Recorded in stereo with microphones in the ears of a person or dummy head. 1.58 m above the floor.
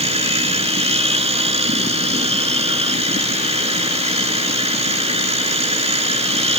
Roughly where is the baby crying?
I don't hear a baby crying.